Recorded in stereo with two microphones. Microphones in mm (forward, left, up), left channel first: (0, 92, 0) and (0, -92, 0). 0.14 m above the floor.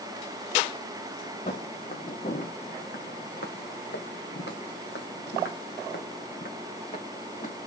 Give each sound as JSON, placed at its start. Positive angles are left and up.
{"t": 1.5, "sound": "footsteps", "side_deg": 40, "distance_m": 2.0}